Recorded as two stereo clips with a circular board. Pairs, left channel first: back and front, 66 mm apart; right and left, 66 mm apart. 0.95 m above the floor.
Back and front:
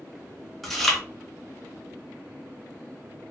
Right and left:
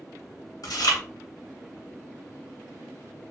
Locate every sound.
0.6 s chewing: 95° right, 0.9 m